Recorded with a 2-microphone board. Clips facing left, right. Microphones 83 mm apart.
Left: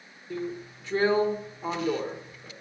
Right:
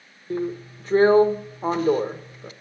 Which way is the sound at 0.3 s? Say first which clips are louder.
Right 7 dB; 45° right (ahead or behind).